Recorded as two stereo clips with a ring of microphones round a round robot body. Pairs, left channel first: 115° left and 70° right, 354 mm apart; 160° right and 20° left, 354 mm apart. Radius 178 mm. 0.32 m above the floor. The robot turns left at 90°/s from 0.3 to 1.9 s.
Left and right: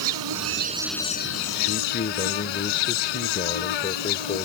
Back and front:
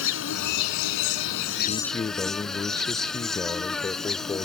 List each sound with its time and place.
0.0 s an insect: 100° right; by 4.5 s 115° left
1.7 s a man speaking: 155° left; by 4.5 s 130° left